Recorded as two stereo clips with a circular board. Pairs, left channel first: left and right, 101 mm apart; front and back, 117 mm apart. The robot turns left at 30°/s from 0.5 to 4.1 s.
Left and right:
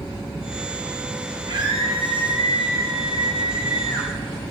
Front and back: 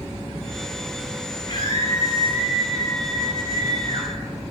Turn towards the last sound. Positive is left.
turn(degrees=-125)